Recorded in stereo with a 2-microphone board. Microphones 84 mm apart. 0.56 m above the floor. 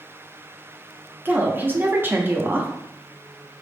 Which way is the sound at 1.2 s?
25° right (ahead or behind).